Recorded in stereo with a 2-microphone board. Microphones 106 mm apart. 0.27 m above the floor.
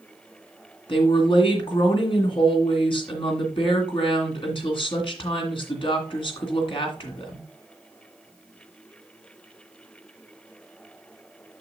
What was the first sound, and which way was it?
A woman speaking, 55° left (ahead or behind).